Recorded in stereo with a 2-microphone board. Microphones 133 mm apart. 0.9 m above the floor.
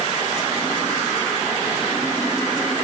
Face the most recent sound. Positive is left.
No sound to turn to.